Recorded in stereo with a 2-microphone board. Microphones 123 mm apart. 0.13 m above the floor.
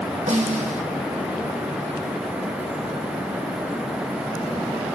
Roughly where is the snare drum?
Right.